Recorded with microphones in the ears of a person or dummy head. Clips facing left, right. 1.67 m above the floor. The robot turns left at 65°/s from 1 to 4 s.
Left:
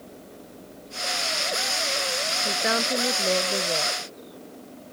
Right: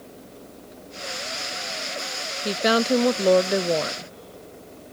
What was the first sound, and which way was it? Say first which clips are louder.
A woman speaking: right 8 dB; 35° right.